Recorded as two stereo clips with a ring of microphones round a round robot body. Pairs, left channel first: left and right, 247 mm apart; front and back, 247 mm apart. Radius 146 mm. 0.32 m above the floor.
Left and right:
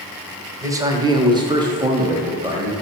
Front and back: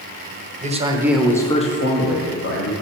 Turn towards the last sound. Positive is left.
turn(degrees=-15)